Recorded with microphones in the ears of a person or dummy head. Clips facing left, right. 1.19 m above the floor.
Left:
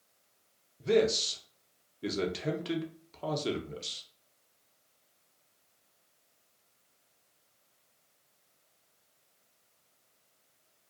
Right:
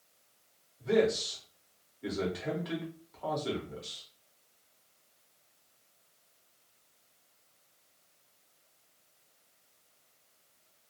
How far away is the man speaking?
About 0.7 m.